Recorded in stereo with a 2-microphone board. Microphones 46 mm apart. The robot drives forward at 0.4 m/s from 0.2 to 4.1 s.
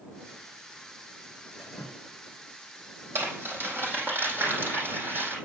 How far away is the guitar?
I don't hear a guitar.